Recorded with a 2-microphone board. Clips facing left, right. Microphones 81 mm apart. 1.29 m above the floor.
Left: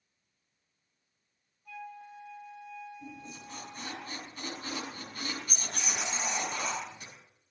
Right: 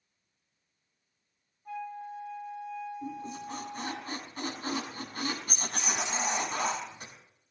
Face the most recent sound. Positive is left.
turn(degrees=-45)  # may be behind; listen again after turning